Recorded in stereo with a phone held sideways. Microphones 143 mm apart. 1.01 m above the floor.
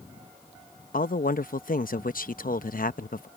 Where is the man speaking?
75° left (ahead or behind).